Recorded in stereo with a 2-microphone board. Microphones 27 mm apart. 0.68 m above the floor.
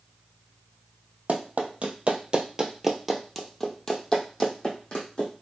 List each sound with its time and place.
1.3 s running footsteps: 60° right (ahead or behind), 1.2 m; by 5.4 s 45° left (ahead or behind), 2.0 m